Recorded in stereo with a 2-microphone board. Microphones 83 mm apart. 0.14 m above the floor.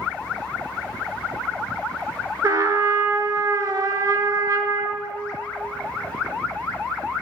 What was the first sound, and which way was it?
A trumpet, 50° right (ahead or behind).